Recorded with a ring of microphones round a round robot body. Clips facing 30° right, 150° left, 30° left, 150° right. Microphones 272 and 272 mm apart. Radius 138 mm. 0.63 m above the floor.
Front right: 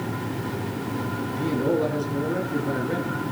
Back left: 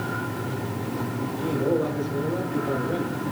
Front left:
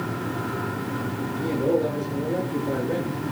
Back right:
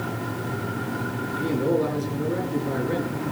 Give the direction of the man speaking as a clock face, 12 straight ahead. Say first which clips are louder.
Even, even; 3 o'clock.